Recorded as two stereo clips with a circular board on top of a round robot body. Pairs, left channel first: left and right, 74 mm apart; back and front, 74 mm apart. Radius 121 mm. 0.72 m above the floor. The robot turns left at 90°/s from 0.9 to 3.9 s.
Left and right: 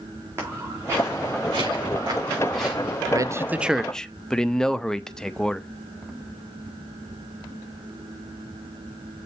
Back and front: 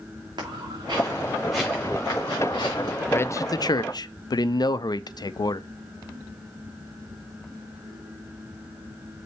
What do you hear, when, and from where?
0.4 s footsteps: 35° right, 3.5 m; by 3.0 s 145° left, 4.5 m
3.1 s a man speaking: 120° right, 0.6 m; by 5.7 s 170° left, 0.6 m